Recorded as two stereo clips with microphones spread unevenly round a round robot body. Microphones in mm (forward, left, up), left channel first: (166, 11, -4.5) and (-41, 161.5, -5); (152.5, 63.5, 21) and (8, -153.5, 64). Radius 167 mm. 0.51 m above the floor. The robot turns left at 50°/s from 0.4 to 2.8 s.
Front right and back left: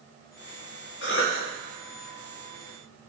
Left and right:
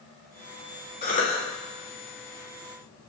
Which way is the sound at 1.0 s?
5° left.